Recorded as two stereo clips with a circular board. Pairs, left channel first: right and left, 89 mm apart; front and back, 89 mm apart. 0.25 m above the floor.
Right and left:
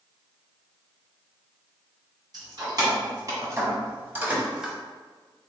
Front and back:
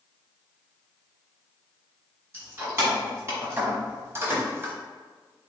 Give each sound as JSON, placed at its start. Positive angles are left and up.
{"t": 2.3, "sound": "keys jangling", "azimuth_deg": 125, "distance_m": 1.6}